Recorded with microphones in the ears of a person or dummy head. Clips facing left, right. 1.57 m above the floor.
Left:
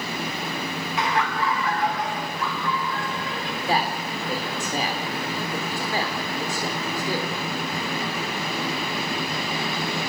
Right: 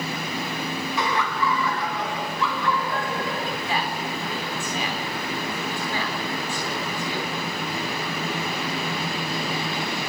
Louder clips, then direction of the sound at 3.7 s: Left 7 dB; 30° left (ahead or behind).